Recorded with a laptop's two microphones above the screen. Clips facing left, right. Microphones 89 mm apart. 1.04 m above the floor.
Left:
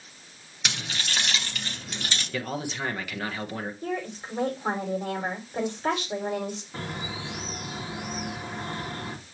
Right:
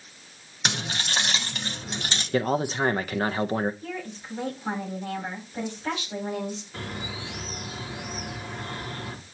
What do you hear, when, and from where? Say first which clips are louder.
0.7 s keys jangling: right 3 dB; 40° right (ahead or behind), 0.6 m; by 2.2 s 30° right (ahead or behind), 2 m
2.3 s a man speaking: right 9 dB; 40° right (ahead or behind), 0.6 m
3.8 s a woman speaking: left 4 dB; 85° left, 5 m
6.7 s a bird: left 1 dB; 30° left (ahead or behind), 1.7 m